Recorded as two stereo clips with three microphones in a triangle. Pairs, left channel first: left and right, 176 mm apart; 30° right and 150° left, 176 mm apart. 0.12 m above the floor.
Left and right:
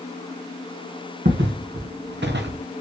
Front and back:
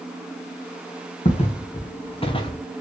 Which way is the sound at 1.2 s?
85° right.